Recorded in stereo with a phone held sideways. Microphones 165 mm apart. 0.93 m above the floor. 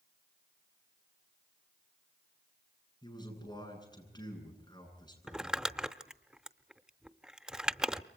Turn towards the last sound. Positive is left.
turn(degrees=-5)  # may be behind; listen again after turning